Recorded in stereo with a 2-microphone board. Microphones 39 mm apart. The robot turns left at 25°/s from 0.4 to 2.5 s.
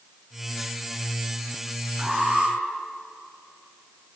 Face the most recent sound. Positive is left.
turn(degrees=-20)  # may be behind; listen again after turning